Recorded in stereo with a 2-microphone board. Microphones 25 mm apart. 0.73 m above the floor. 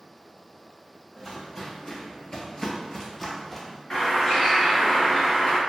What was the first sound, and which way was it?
Footsteps, 25° left (ahead or behind).